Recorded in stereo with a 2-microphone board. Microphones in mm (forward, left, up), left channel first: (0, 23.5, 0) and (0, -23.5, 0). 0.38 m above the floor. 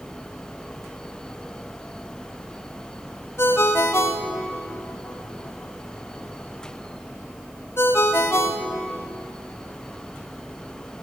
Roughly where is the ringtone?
Left.